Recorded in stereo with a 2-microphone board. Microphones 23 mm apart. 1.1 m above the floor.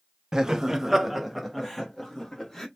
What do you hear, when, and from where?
0.3 s laughter: 30° right (ahead or behind), 0.6 m; by 2.7 s 10° left (ahead or behind), 1.4 m